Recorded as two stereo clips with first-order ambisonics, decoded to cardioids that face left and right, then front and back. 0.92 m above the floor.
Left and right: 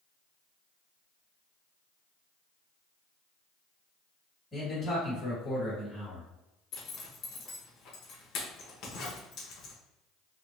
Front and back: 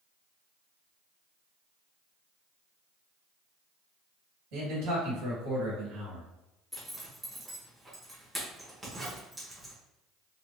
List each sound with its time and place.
4.5 s a man speaking: 175° left, 1.7 m
6.7 s a zipper: 100° left, 0.9 m